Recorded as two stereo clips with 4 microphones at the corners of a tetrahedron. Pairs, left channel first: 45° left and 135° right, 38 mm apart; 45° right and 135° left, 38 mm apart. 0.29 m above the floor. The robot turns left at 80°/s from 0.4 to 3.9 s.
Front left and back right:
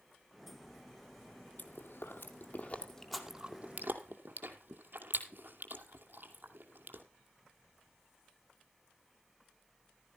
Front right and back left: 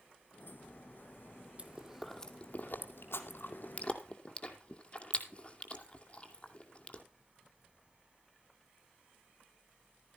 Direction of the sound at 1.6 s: 80° left.